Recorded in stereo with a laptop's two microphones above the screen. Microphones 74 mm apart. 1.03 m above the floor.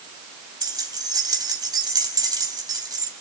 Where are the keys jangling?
70° right (ahead or behind), 4 m.